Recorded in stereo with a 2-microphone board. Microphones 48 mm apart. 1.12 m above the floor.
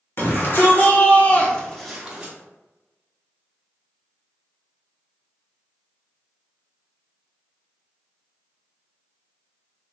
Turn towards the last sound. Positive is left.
turn(degrees=-15)  # may be behind; listen again after turning